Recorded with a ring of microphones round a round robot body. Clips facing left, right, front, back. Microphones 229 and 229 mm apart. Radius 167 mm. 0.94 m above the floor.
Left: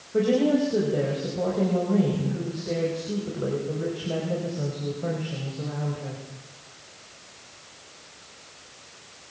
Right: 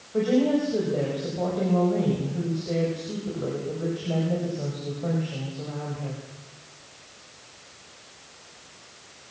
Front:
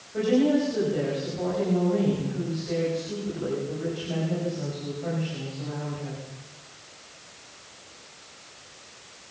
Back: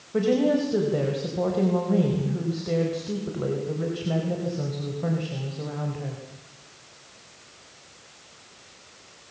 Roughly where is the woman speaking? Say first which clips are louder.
Left 1 dB, even; behind.